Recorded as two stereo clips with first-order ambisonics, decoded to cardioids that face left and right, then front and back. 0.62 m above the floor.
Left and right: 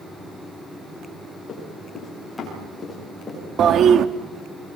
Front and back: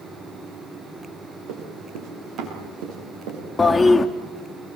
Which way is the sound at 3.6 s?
75° right.